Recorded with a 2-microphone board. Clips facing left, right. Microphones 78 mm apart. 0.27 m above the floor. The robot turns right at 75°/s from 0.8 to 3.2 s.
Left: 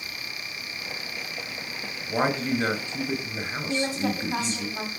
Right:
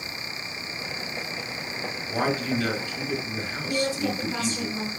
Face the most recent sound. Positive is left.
turn(degrees=30)  # may be behind; listen again after turning